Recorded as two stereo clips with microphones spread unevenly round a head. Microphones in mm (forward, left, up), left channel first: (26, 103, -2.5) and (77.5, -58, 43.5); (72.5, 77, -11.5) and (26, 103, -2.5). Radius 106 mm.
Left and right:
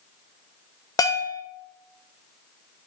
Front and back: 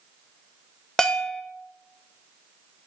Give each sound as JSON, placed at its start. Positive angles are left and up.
{"t": 1.0, "sound": "a bell", "azimuth_deg": 45, "distance_m": 1.2}